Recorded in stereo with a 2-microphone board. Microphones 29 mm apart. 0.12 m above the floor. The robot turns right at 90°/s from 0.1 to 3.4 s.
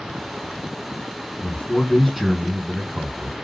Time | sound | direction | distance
1.4 | a man speaking | 110° left | 3 m